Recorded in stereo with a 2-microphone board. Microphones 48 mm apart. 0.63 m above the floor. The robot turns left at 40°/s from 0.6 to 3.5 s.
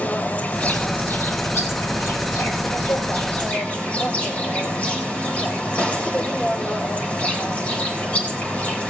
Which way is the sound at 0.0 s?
150° left.